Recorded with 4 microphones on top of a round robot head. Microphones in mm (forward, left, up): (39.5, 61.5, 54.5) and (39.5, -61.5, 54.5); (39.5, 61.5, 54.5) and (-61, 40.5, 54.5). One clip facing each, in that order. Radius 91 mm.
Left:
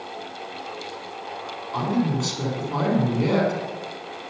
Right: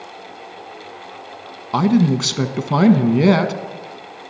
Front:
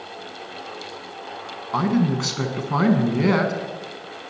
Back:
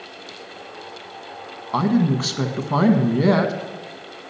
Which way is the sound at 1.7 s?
90° right.